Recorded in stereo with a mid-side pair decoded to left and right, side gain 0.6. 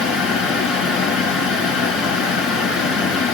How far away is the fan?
About 3.5 m.